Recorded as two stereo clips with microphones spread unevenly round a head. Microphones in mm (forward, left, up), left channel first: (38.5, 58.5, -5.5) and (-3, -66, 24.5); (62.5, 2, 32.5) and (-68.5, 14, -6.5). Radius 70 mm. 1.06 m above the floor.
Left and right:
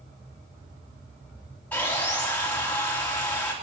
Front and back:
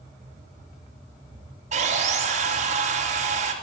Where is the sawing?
150° left, 3 m.